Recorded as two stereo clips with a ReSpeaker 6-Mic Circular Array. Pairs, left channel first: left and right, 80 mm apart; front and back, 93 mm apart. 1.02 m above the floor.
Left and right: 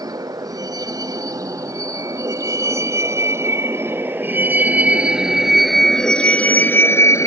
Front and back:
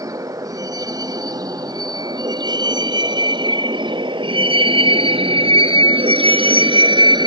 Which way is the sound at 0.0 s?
130° right.